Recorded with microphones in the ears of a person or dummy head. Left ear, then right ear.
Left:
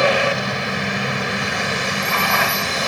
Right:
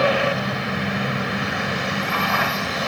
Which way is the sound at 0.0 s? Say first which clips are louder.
Left 3 dB; 20° left (ahead or behind).